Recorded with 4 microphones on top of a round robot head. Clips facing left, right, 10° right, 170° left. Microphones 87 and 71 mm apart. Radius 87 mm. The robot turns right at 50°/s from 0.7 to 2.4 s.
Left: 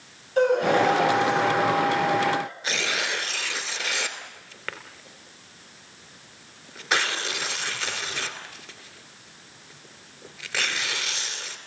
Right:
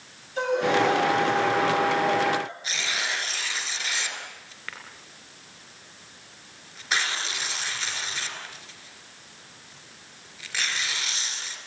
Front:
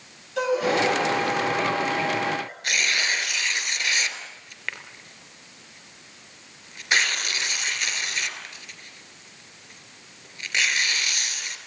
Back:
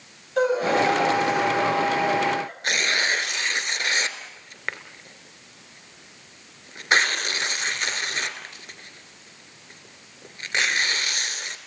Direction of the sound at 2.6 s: 125° left.